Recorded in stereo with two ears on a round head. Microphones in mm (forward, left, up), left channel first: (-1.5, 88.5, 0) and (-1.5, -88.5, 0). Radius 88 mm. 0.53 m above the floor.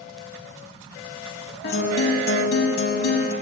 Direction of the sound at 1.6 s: 55° left (ahead or behind).